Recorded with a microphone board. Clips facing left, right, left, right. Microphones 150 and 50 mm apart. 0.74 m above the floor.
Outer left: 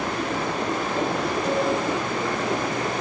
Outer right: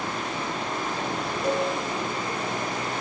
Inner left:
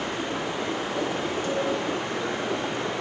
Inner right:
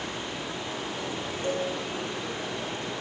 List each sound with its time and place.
0.0 s running water: 85° left, 7.5 m
1.4 s a cowbell: 30° right (ahead or behind), 9.5 m